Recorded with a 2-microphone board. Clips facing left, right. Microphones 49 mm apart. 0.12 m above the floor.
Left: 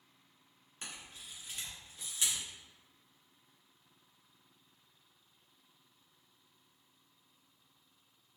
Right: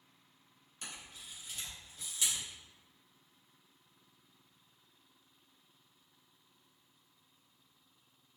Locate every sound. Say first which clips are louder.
0.8 s a camera shutter: even; 30° left (ahead or behind), 1.6 m